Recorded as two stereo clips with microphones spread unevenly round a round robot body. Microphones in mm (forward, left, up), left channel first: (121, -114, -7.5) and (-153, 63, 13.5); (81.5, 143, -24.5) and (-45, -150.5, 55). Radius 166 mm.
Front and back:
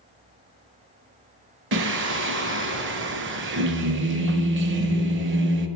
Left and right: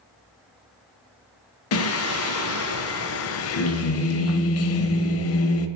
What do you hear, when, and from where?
1.7 s singing: 90° left, 0.5 m